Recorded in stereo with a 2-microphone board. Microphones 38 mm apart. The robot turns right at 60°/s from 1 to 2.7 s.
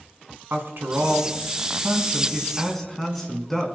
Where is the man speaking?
95° right, 3.5 m; by 3.7 s 5° left, 3.5 m.